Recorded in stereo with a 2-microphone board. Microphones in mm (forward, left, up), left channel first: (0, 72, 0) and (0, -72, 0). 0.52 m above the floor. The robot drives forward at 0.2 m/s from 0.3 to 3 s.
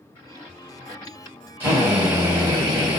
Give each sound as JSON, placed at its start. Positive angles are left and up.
{"t": 1.6, "sound": "a drill", "side_deg": -15, "distance_m": 1.8}